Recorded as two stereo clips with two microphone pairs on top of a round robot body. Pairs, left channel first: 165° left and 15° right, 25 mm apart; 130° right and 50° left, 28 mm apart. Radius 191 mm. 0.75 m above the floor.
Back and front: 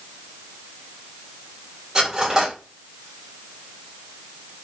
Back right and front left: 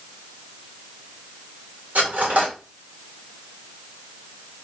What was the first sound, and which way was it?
Cutlery clinking, 50° left.